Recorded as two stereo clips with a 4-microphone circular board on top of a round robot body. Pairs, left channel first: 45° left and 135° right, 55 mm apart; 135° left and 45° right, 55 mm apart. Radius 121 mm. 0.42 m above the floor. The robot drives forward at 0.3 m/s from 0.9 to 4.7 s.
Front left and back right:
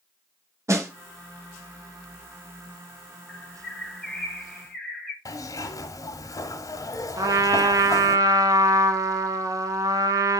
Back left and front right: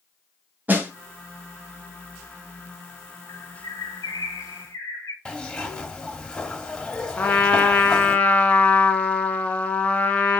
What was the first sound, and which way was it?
A snare drum, 105° right.